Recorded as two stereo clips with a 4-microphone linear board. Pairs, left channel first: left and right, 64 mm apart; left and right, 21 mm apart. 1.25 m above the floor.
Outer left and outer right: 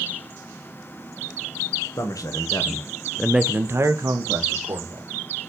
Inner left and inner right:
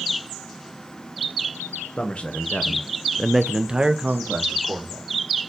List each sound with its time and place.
2.0 s a man speaking: 65° left (ahead or behind), 1.4 m; by 5.1 s 65° right (ahead or behind), 2.0 m